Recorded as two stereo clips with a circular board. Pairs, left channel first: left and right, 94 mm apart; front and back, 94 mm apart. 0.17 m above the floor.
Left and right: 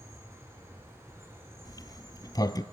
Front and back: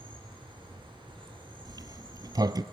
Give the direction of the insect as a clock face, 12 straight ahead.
5 o'clock.